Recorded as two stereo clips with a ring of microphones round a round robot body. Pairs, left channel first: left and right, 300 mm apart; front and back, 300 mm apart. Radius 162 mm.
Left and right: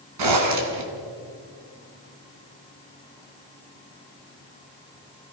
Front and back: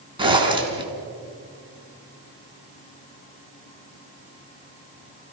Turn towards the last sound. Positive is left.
turn(degrees=-105)